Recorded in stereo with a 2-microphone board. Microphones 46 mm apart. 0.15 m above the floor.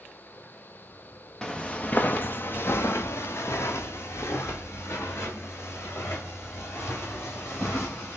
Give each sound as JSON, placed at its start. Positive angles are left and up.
{"t": 1.4, "sound": "footsteps", "side_deg": 10, "distance_m": 0.7}